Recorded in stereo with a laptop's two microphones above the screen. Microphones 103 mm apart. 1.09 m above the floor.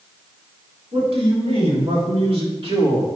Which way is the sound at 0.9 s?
70° right (ahead or behind).